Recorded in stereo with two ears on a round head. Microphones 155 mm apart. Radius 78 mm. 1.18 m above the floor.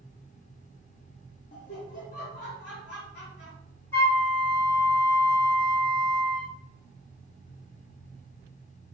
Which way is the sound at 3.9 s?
15° left (ahead or behind).